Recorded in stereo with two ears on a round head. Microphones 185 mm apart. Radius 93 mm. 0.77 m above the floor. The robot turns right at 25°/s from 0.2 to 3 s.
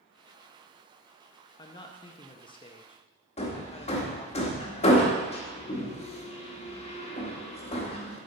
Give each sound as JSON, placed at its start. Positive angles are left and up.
{"t": 1.6, "sound": "a man speaking", "side_deg": 20, "distance_m": 0.7}
{"t": 3.4, "sound": "hammering", "side_deg": 30, "distance_m": 1.2}